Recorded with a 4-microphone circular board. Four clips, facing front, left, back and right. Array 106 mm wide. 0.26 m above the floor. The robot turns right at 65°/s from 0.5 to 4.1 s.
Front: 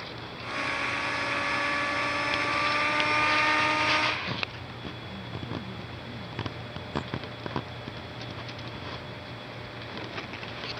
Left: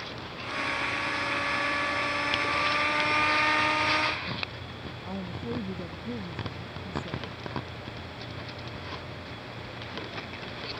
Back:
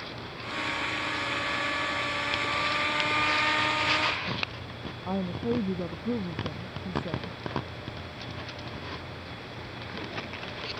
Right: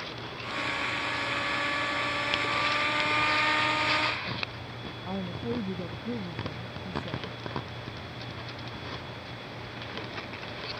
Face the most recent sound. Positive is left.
turn(degrees=-170)